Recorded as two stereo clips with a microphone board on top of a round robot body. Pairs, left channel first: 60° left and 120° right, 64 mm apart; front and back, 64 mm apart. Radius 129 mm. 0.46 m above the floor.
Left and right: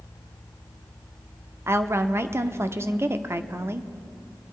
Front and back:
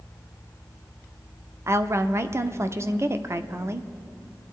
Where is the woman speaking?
150° right, 1.0 m.